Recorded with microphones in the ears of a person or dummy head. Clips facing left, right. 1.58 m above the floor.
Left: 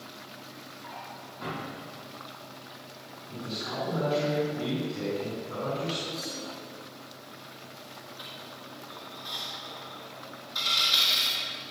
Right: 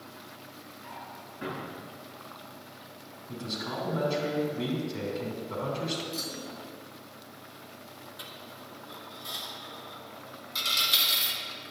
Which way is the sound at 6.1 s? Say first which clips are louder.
Left 1 dB; 45° right (ahead or behind).